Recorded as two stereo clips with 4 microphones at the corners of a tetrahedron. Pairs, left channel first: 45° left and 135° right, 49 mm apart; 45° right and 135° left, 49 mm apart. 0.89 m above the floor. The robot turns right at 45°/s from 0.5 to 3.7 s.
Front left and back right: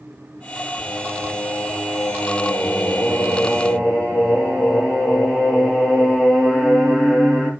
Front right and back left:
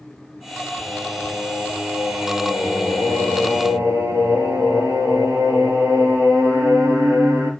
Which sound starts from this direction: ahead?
Singing, at 0.8 s.